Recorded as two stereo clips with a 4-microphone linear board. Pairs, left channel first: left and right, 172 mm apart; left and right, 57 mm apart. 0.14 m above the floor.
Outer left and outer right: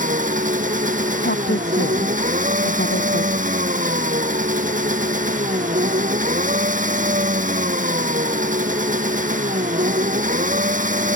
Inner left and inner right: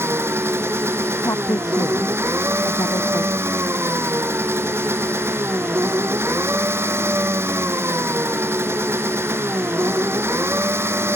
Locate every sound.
0.0 s an engine running: 50° right (ahead or behind)
1.2 s a woman speaking: 75° left (ahead or behind)